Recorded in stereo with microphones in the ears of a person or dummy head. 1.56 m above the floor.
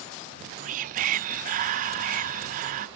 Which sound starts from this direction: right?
Whispering, at 0.2 s.